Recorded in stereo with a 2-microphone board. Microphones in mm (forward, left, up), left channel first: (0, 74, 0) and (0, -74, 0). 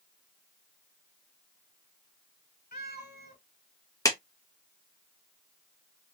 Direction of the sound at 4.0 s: 20° left (ahead or behind).